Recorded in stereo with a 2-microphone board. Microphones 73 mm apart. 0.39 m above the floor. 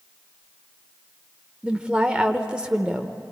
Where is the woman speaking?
15° right (ahead or behind), 0.9 m.